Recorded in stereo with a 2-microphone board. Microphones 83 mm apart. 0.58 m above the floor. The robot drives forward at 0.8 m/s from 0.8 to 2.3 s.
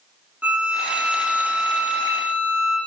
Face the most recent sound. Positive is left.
turn(degrees=-15)  # may be behind; listen again after turning